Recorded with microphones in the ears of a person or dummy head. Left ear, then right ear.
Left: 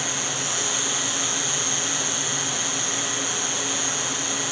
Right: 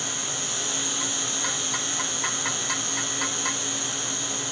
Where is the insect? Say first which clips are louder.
Left 3 dB; 15° left (ahead or behind), 9.5 m.